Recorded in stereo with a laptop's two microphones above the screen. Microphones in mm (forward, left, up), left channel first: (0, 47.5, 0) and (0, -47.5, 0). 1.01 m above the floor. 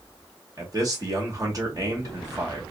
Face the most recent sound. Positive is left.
turn(degrees=-40)  # may be behind; listen again after turning